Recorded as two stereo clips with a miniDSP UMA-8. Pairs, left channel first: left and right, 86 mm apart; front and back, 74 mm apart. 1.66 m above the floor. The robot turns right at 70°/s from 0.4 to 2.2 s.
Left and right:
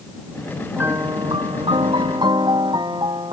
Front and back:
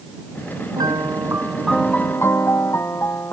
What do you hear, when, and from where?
0.8 s a piano: 160° right; by 3.3 s 55° right